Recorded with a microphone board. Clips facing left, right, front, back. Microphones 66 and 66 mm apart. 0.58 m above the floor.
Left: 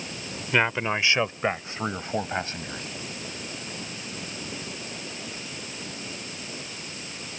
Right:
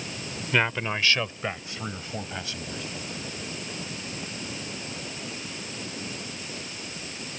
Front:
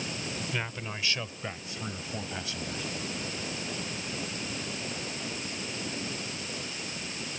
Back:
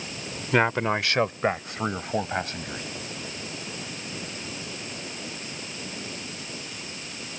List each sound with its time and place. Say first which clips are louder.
0.5 s a man speaking: left 2 dB, back 13 dB; 170° left; by 2.8 s 140° left